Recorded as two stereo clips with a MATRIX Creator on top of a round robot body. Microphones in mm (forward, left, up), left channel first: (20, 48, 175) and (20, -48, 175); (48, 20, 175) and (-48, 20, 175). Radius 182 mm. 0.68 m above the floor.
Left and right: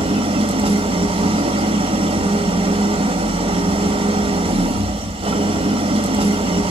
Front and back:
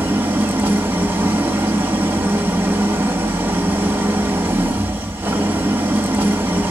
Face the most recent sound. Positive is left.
turn(degrees=-110)